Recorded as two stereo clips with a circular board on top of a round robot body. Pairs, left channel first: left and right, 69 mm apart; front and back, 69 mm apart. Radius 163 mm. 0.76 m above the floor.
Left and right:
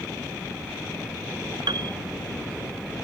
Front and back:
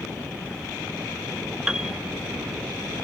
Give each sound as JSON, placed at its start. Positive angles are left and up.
{"t": 1.7, "sound": "a piano", "azimuth_deg": -100}